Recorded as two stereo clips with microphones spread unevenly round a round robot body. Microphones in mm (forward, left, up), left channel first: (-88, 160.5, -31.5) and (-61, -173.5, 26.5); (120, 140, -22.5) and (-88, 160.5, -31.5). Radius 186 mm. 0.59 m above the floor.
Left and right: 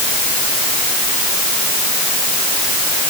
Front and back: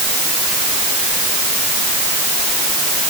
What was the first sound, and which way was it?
Only background noise.